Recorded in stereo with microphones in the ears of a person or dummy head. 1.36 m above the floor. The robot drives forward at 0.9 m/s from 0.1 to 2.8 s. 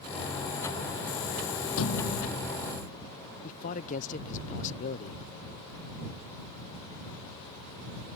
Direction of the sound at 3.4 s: 35° left (ahead or behind).